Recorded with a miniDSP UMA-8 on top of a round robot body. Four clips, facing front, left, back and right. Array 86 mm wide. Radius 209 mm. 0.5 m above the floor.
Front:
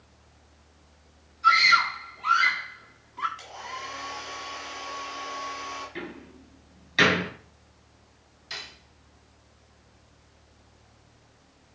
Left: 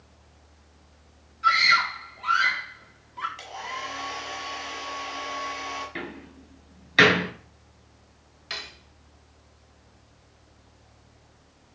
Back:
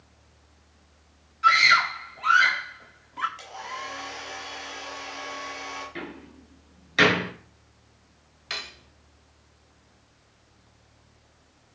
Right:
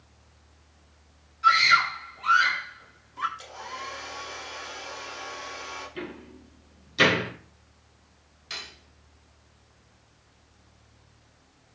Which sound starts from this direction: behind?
A scream, at 1.4 s.